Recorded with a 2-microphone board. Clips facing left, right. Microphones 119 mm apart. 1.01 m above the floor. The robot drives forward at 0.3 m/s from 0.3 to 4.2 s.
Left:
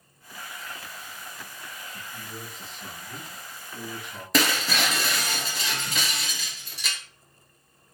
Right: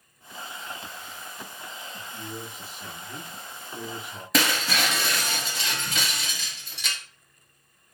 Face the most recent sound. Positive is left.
turn(degrees=0)  # may be behind; listen again after turning